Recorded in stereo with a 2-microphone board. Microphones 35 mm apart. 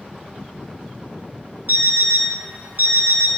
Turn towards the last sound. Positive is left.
turn(degrees=-65)  # may be behind; listen again after turning